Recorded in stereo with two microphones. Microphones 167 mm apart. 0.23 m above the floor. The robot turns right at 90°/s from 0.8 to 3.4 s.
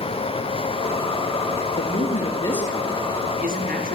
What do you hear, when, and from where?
1.8 s a man speaking: 95° left, 5 m; by 4.0 s 115° right, 5 m